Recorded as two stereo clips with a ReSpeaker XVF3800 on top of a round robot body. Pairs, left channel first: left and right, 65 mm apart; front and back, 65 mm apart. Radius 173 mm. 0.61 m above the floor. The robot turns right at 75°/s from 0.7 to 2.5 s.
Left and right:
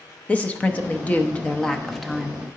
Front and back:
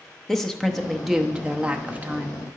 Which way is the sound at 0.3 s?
75° left.